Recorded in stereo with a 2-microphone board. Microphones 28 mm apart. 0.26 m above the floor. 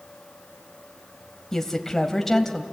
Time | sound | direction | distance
1.5 | a woman speaking | 10° left (ahead or behind) | 1.7 m